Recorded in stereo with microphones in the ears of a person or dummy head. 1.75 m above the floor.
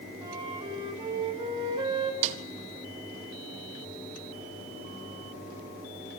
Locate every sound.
0.2 s a flute: 25° right (ahead or behind), 5 m
2.2 s a snare drum: 35° right (ahead or behind), 1.8 m